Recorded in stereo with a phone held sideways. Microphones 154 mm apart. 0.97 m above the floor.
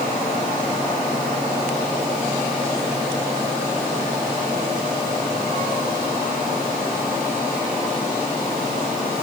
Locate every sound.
Only background noise.